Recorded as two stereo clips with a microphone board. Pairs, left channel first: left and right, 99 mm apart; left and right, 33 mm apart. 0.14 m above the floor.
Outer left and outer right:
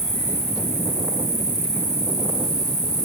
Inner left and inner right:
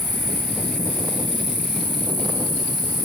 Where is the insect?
75° right (ahead or behind), 4.5 m.